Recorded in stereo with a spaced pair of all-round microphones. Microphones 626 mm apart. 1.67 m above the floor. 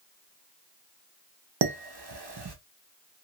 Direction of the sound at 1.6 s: 40° right (ahead or behind).